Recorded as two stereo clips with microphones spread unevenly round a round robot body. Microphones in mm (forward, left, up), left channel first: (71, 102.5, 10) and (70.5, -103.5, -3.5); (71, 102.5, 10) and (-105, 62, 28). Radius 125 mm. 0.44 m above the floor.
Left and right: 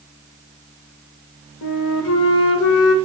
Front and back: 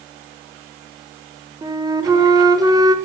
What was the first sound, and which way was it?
A flute, 120° left.